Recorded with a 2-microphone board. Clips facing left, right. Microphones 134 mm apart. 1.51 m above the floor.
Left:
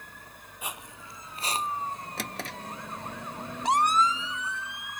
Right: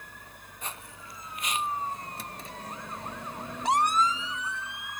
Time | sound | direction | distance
0.6 | footsteps | 10° left (ahead or behind) | ?
2.2 | a drawer | 85° left | ?